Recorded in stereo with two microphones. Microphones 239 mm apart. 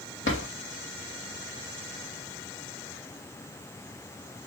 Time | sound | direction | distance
0.2 | a drawer | 55° left (ahead or behind) | 1.5 m